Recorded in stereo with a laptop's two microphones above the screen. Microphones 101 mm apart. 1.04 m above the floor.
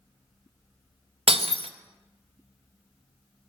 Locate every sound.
1.3 s breaking glass: 65° right (ahead or behind), 0.5 m